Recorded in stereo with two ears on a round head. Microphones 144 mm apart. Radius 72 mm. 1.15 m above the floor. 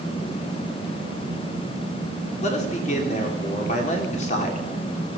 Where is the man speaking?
50° left (ahead or behind), 3.5 m.